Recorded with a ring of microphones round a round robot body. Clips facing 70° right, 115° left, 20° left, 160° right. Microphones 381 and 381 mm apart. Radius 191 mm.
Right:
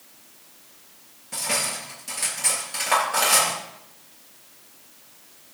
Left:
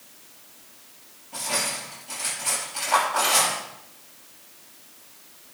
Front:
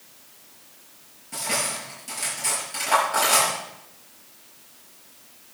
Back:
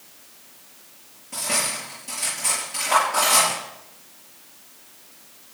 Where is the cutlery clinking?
55° right, 6.5 m.